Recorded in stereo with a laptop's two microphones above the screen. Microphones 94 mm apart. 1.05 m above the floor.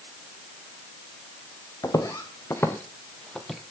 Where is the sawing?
I don't hear sawing.